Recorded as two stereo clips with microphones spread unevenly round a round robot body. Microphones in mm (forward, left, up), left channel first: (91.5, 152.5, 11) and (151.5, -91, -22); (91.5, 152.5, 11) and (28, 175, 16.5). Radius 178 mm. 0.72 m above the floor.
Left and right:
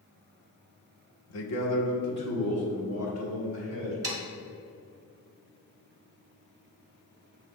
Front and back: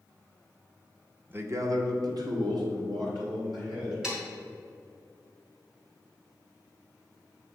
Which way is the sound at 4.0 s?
120° right.